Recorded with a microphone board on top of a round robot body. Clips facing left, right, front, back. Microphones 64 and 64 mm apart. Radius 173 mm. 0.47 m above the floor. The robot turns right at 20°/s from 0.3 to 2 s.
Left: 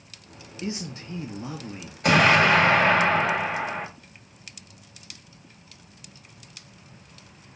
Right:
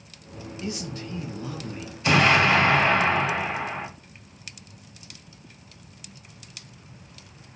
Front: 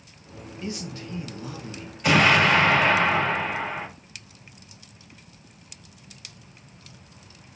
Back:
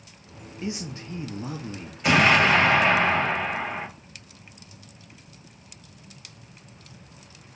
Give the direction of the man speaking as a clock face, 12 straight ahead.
8 o'clock.